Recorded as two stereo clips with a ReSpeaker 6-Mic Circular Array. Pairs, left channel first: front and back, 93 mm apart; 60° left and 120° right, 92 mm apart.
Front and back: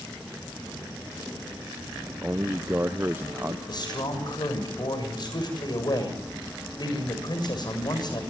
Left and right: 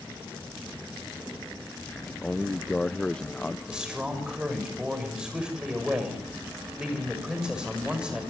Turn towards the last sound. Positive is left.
turn(degrees=-40)